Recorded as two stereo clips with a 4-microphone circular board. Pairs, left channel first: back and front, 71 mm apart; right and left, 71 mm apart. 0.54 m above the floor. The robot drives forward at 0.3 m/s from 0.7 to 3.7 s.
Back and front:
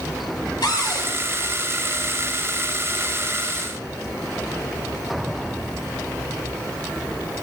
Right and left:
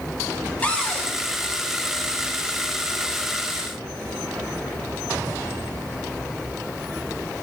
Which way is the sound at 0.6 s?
160° right.